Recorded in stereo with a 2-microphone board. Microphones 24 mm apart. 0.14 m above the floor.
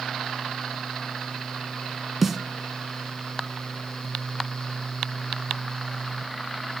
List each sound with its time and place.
2.2 s a snare drum: 10° right (ahead or behind), 0.6 m